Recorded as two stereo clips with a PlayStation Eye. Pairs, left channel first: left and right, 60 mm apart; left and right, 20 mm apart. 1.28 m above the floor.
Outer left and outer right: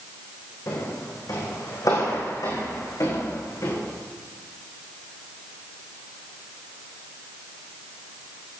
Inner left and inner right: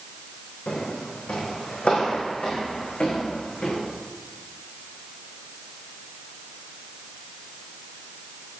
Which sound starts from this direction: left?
Footsteps, at 0.7 s.